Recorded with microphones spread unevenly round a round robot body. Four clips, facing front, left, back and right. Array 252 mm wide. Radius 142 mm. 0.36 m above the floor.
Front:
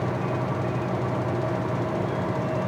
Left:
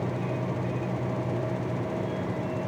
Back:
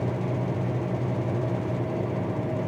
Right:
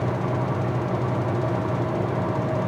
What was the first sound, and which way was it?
Only background noise.